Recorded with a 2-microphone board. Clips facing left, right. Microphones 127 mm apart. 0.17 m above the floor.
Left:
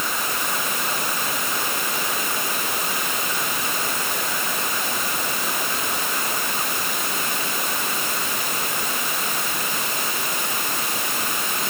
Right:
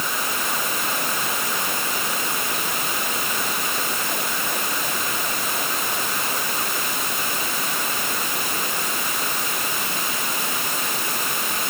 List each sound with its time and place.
Only background noise.